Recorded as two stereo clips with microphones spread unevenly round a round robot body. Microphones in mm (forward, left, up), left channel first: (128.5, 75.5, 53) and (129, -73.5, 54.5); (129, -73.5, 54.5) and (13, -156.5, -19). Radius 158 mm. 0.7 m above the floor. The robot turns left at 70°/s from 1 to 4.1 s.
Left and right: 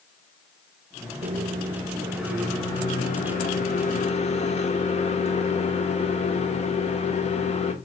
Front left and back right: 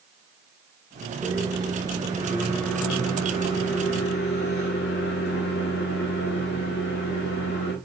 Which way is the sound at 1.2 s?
105° right.